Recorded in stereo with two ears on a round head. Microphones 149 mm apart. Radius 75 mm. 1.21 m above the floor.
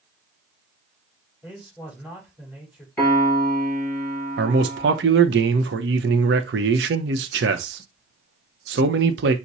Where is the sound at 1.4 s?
5° right (ahead or behind), 4 m.